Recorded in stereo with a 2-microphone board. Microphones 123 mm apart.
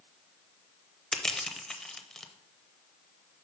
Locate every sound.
1.1 s crushing: 5° left (ahead or behind), 0.5 m